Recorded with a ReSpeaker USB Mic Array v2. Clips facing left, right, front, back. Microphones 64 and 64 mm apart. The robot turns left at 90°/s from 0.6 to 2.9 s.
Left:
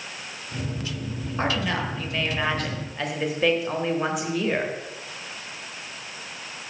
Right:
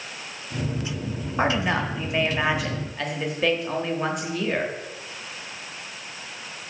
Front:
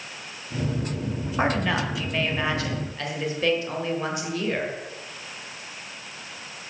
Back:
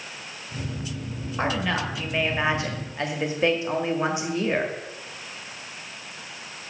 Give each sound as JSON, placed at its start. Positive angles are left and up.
{"t": 1.4, "sound": "a woman speaking", "azimuth_deg": -55, "distance_m": 1.1}